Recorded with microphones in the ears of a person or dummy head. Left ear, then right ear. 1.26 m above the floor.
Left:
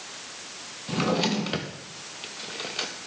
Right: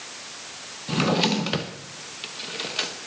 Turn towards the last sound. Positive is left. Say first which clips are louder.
# right 3 dB
turn(degrees=-5)  # may be behind; listen again after turning